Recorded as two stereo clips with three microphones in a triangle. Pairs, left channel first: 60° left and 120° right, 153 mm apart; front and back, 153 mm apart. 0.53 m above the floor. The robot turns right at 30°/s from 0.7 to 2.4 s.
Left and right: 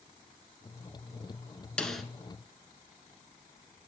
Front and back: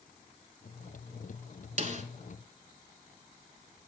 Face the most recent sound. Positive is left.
turn(degrees=160)